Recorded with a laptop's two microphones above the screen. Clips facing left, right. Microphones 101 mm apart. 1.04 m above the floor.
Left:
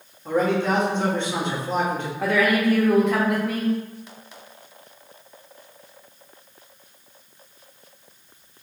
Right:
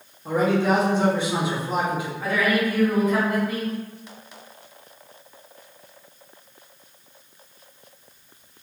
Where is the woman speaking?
75° left (ahead or behind), 1.1 m.